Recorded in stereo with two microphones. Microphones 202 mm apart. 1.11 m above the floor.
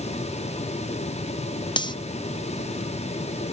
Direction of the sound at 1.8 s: 20° left (ahead or behind).